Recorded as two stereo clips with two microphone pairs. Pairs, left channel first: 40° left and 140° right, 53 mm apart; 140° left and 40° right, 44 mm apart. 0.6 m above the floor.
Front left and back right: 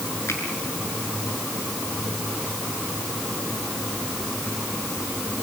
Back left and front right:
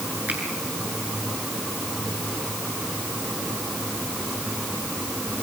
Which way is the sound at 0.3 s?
10° left.